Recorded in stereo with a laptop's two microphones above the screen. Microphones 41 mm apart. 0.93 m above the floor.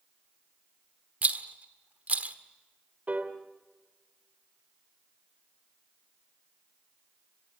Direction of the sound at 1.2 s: 40° right (ahead or behind).